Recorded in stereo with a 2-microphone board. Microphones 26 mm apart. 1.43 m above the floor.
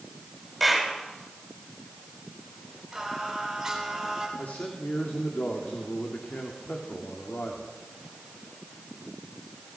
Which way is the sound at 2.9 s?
5° right (ahead or behind).